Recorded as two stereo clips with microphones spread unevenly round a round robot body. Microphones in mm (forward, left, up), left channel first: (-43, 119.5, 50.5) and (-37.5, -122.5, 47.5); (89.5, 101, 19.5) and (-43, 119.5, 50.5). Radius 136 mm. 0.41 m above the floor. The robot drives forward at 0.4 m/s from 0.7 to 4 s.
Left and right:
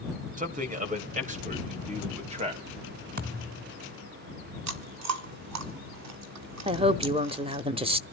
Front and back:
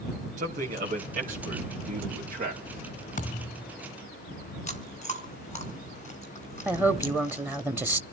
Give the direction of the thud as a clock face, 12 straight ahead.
1 o'clock.